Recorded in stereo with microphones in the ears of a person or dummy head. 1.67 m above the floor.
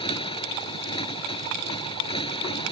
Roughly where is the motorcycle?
Left.